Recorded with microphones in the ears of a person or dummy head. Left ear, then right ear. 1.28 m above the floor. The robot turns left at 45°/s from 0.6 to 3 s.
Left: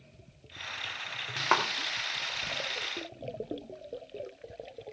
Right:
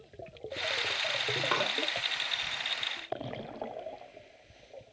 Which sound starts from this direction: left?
A clap, at 1.5 s.